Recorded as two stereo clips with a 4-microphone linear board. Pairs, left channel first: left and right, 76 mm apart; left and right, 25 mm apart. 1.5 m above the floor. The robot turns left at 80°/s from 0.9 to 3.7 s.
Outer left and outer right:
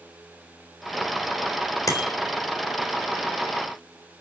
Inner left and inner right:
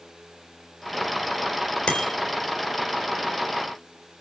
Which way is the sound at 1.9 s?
50° left (ahead or behind).